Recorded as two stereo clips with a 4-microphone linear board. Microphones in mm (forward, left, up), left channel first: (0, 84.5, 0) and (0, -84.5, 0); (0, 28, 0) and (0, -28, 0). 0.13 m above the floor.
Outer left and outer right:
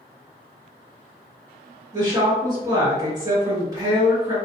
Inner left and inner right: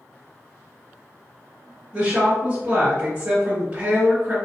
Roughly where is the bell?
No bell in this recording.